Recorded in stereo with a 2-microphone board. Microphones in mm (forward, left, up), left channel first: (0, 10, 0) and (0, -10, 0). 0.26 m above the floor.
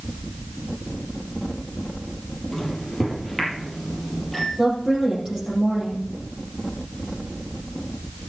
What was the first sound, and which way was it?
A microwave, 5° left (ahead or behind).